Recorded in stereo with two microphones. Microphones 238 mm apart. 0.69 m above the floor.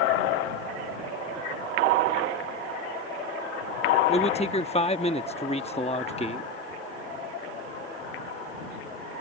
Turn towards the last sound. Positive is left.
turn(degrees=25)  # may be behind; listen again after turning